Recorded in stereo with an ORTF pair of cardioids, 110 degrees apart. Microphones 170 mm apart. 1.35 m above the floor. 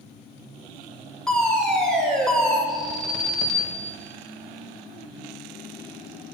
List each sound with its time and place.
1.3 s a fire alarm: 5° left, 5 m
2.7 s an alarm: straight ahead, 4 m